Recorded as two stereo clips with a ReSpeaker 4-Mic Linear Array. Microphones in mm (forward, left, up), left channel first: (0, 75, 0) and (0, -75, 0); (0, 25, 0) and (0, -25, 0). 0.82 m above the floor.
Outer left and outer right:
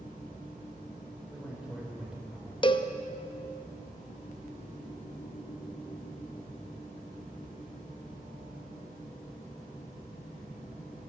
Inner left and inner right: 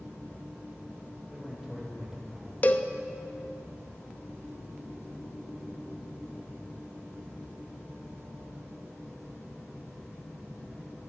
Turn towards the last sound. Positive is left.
turn(degrees=35)  # may be behind; listen again after turning